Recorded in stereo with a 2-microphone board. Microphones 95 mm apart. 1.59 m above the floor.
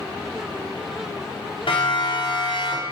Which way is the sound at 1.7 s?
70° left (ahead or behind).